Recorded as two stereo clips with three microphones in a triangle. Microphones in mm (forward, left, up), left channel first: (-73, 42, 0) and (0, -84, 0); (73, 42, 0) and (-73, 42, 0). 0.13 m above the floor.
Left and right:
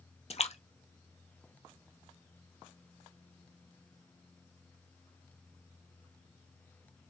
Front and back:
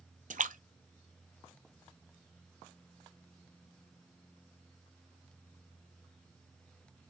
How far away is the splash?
About 0.9 m.